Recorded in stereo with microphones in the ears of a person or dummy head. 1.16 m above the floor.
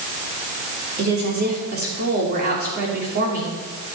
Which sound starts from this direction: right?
A woman speaking, at 1.0 s.